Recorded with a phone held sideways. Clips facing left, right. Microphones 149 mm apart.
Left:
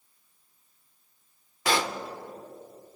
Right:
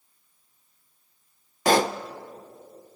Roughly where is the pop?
Right.